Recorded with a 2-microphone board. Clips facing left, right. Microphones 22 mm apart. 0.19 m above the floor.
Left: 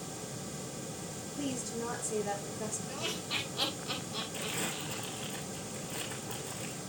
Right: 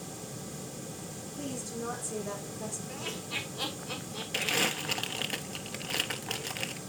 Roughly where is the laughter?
Left.